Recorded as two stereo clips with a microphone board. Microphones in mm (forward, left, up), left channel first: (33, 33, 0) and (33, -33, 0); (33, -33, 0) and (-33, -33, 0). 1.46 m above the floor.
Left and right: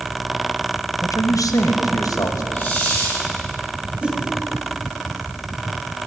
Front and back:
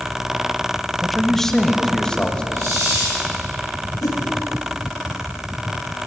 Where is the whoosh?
20° right, 1.8 m.